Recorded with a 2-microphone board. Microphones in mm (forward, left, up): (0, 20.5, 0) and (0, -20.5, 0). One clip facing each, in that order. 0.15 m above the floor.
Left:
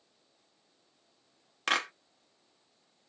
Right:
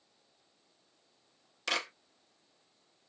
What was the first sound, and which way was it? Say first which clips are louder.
A clap: left 4 dB; 45° left (ahead or behind).